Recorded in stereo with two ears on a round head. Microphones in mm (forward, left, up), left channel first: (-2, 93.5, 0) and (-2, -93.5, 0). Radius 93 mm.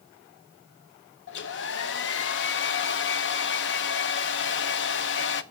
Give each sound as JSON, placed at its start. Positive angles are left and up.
{"t": 1.3, "sound": "a hair dryer", "side_deg": 60, "distance_m": 0.6}